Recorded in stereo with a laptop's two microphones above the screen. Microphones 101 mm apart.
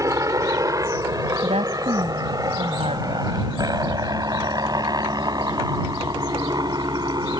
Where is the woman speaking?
85° right.